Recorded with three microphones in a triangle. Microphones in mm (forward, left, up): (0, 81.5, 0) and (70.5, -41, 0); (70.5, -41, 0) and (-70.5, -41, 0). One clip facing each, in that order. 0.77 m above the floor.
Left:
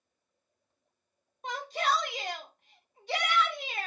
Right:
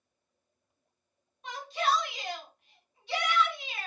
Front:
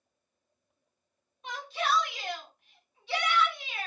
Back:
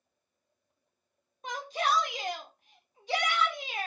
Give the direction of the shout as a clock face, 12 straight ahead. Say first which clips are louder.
Even, back 1 dB; 7 o'clock.